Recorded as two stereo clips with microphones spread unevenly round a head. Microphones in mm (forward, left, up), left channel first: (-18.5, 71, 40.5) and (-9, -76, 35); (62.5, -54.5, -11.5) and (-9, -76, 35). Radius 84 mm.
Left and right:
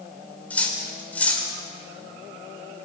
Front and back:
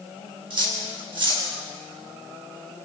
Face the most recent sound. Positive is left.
turn(degrees=175)